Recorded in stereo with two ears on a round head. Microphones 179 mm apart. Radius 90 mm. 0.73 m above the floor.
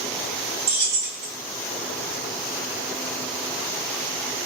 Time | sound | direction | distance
0.7 | keys jangling | 50° right (ahead or behind) | 0.7 m